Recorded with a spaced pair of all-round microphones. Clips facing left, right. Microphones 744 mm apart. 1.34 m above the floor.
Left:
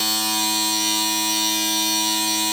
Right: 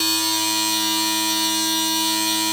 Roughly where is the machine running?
Centre.